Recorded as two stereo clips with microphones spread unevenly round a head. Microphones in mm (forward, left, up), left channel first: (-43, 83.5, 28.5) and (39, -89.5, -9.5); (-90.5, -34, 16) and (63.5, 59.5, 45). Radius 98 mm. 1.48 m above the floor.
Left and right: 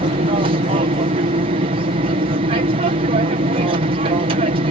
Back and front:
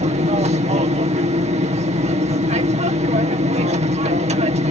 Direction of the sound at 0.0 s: 25° right.